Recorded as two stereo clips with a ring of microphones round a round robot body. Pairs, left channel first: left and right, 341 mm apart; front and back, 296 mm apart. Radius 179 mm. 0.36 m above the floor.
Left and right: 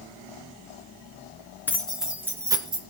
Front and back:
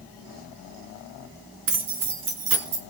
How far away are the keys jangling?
About 3.5 m.